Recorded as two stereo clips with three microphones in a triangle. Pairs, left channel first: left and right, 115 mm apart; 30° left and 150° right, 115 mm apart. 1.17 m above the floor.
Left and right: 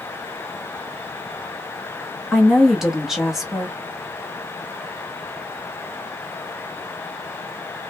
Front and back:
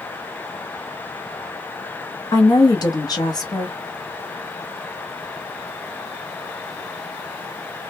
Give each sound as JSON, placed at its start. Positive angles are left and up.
{"t": 2.3, "sound": "a woman speaking", "azimuth_deg": -5, "distance_m": 0.7}